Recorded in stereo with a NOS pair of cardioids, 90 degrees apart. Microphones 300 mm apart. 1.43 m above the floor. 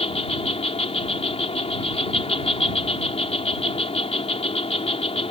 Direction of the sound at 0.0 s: 20° left.